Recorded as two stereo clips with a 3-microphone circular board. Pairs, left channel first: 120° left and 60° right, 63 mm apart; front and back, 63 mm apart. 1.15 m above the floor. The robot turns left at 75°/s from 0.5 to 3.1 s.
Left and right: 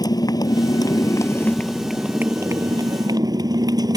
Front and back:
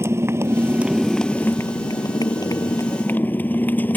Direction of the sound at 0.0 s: 130° left.